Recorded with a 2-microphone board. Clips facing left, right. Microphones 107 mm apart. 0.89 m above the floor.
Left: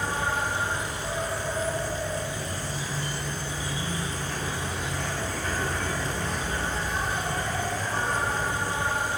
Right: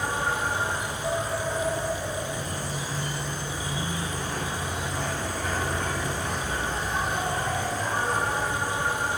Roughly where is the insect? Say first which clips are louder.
Right 1 dB; centre.